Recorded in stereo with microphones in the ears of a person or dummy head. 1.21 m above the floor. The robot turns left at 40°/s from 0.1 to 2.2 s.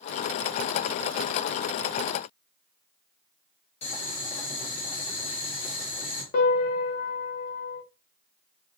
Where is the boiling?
40° left (ahead or behind), 1.1 m.